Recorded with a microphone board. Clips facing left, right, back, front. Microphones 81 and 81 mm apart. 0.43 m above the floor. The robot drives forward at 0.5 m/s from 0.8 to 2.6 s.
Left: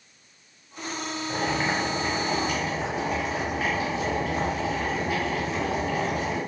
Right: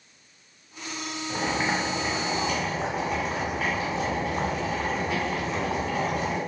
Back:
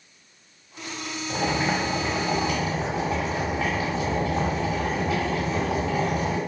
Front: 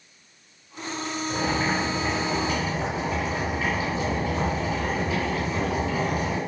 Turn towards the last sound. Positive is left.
turn(degrees=175)